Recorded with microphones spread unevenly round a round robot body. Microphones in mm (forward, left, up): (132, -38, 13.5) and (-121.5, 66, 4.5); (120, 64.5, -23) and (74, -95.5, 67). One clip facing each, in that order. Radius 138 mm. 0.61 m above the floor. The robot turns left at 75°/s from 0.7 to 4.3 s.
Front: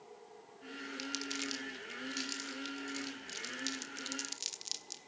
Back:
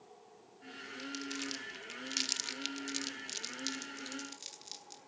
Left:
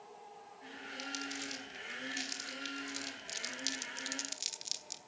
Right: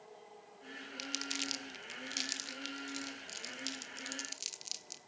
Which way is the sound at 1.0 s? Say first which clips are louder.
Back 2 dB, even; 80° right.